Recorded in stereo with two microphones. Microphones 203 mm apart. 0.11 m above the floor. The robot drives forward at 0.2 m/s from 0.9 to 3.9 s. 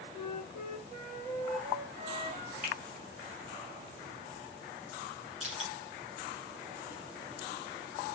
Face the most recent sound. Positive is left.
turn(degrees=-35)  # may be behind; listen again after turning